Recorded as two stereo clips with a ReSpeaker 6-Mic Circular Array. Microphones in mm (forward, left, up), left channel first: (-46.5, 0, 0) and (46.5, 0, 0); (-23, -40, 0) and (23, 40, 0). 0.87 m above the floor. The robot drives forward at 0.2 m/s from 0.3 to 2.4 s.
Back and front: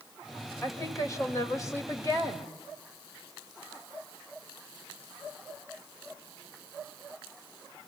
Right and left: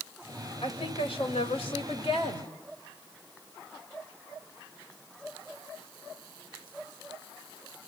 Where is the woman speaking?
125° right, 3 m; by 2.5 s 130° right, 3.5 m.